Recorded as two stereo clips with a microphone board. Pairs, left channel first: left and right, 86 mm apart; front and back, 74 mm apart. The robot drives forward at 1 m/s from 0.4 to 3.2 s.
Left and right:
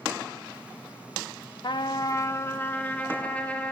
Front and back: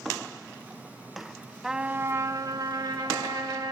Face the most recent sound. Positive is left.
turn(degrees=160)